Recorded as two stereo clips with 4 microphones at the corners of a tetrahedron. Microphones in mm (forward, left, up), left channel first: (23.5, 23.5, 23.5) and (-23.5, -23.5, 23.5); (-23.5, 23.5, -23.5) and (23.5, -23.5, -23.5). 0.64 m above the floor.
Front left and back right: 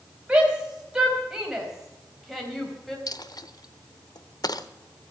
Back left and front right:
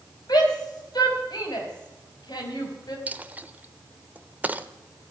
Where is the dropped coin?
20° left, 0.7 m.